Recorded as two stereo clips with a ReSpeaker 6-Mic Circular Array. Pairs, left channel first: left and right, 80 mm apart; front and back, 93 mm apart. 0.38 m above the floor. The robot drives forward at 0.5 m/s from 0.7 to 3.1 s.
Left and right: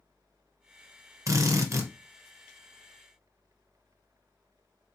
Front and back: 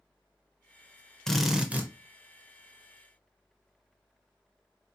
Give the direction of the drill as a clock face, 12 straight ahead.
3 o'clock.